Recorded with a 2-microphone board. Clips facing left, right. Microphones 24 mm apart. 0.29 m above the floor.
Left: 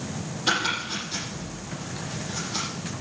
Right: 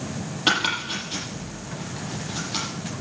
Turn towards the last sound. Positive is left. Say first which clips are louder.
# right 3 dB
turn(degrees=-80)